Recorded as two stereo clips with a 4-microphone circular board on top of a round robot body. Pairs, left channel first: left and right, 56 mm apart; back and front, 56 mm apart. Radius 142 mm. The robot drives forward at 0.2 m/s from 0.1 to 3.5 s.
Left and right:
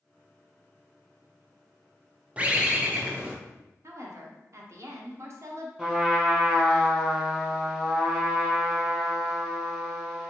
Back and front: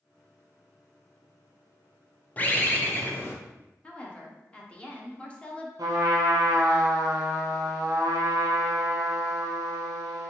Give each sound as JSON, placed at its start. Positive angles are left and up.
{"t": 2.4, "sound": "a bird", "azimuth_deg": -140, "distance_m": 0.7}
{"t": 3.8, "sound": "a woman speaking", "azimuth_deg": -110, "distance_m": 0.8}
{"t": 5.8, "sound": "a trumpet", "azimuth_deg": -10, "distance_m": 0.5}